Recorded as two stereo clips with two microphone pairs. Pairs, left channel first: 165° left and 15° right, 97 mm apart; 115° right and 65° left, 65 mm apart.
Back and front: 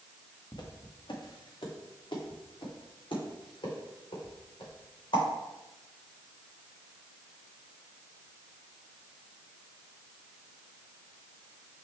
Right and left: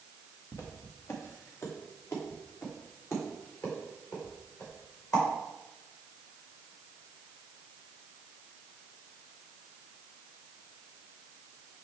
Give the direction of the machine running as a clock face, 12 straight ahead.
No machine running in this recording.